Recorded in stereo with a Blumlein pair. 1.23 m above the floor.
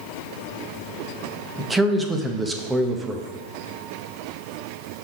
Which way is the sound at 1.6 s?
5° right.